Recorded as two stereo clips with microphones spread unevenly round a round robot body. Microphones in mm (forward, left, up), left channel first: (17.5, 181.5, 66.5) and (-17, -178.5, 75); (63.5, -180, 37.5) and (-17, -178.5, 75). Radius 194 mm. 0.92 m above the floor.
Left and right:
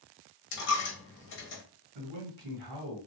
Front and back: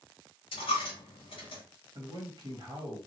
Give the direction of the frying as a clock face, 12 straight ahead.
No frying in this recording.